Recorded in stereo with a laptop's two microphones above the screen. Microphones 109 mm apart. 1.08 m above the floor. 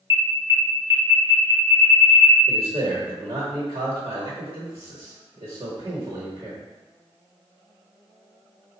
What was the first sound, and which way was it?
An alarm, 30° right (ahead or behind).